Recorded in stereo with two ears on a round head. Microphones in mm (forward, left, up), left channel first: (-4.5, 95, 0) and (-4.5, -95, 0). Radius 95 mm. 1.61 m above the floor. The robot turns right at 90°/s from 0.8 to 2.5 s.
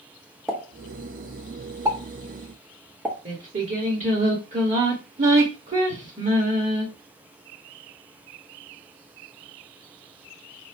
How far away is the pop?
About 1.0 m.